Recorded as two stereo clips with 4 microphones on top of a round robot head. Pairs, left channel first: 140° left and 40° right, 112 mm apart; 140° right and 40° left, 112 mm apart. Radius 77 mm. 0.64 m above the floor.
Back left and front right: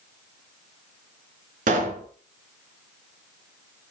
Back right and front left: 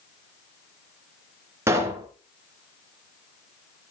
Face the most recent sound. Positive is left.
turn(degrees=-25)